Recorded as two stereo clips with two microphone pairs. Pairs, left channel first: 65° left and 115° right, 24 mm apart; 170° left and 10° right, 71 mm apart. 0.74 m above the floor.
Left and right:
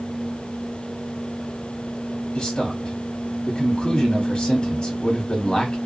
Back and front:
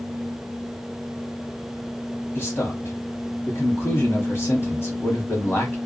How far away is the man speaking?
About 1.0 m.